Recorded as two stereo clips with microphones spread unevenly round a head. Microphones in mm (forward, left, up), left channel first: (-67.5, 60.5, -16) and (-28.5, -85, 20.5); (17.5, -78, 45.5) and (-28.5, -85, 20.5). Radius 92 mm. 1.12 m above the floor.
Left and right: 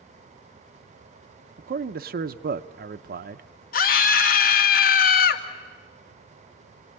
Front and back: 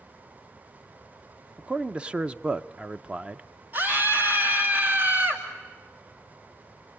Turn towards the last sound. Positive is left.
turn(degrees=125)